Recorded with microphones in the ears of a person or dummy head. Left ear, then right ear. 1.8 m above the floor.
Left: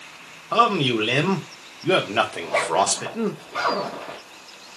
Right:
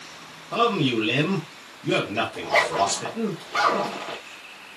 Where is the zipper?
25° right (ahead or behind), 1.8 m.